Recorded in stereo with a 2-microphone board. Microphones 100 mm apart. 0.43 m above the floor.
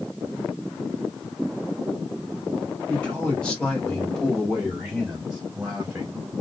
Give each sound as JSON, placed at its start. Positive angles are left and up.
{"t": 2.9, "sound": "a man speaking", "side_deg": 10, "distance_m": 1.7}